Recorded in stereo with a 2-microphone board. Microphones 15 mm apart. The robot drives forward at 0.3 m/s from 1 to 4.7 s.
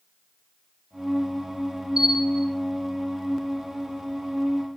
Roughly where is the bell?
Right.